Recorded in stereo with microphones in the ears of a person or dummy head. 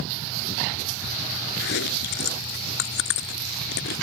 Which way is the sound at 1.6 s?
55° left (ahead or behind).